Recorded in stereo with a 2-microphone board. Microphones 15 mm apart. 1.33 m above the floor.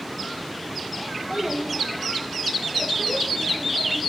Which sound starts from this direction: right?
A child speaking, at 1.3 s.